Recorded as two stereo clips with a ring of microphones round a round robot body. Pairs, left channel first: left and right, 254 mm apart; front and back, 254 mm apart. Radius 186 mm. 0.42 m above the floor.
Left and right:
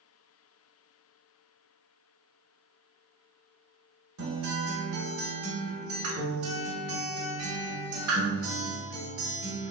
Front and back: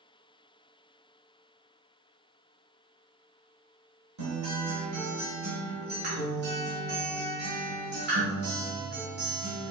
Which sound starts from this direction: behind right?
A guitar, at 4.2 s.